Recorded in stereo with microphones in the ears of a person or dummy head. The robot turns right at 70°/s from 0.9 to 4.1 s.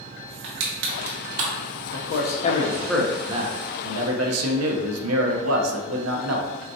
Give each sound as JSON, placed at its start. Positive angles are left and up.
{"t": 0.4, "sound": "crushing", "side_deg": -55, "distance_m": 0.9}
{"t": 1.9, "sound": "a man speaking", "azimuth_deg": 110, "distance_m": 0.8}